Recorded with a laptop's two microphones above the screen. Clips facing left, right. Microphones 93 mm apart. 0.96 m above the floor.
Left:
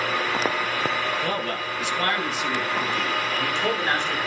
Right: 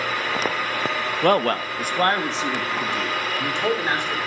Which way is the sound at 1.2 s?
65° right (ahead or behind).